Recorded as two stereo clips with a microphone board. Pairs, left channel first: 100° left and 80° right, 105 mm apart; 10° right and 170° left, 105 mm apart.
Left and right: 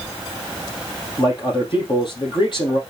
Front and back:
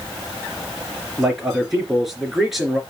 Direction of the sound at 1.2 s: 80° left.